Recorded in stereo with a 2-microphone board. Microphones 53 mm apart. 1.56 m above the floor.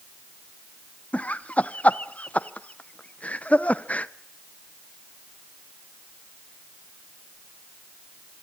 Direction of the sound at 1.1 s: 30° left (ahead or behind).